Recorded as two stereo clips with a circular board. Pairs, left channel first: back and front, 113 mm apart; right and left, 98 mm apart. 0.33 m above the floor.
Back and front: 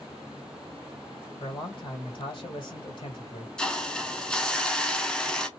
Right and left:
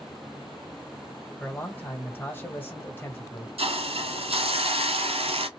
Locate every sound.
1.4 s a man speaking: 155° right, 1.5 m
3.6 s a hiss: 95° left, 0.7 m